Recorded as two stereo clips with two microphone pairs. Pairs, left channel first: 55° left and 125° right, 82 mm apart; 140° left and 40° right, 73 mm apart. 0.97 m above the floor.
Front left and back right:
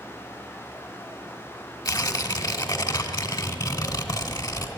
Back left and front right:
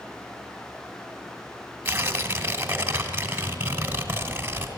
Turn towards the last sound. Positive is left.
turn(degrees=20)